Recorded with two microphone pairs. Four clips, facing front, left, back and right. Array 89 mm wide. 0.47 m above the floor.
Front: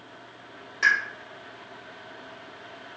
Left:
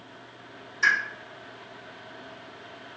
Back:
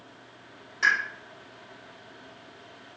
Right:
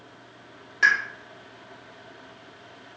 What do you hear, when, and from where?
0.8 s a pop: 70° right, 1.4 m